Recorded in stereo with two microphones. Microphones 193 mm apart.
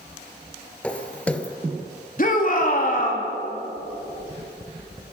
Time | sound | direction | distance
0.8 | footsteps | 5° left (ahead or behind) | 1.4 m
2.2 | a shout | 50° left (ahead or behind) | 3 m